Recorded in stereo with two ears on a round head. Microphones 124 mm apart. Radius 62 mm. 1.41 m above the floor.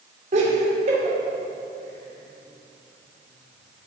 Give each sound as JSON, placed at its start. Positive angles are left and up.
{"t": 0.3, "sound": "laughter", "side_deg": -55, "distance_m": 5.0}